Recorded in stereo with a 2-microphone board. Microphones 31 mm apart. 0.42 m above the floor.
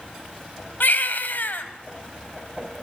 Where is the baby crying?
70° left (ahead or behind), 1.9 m.